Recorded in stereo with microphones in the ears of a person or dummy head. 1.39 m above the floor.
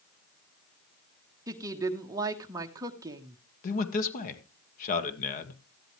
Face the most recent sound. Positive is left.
turn(degrees=60)  # may be behind; listen again after turning